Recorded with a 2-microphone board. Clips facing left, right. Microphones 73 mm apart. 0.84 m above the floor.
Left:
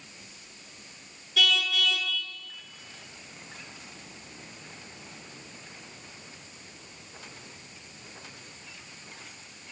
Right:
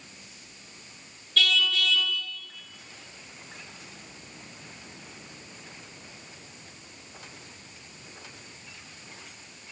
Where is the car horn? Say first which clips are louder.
Right 1 dB; 10° left (ahead or behind), 7 m.